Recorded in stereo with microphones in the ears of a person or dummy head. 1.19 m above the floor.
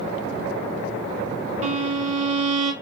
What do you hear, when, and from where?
1.6 s a violin: 40° right (ahead or behind), 0.7 m